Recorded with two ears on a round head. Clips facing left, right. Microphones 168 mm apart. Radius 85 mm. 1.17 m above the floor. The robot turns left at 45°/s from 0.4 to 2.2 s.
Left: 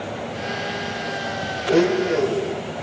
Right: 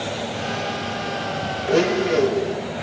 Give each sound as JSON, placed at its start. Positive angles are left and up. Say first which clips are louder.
{"t": 1.7, "sound": "a blender", "louder": "left 1 dB", "side_deg": 30, "distance_m": 5.5}